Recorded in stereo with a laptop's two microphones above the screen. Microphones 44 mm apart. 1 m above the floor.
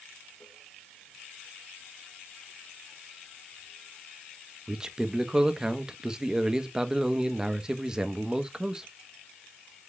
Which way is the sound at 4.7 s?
20° right (ahead or behind).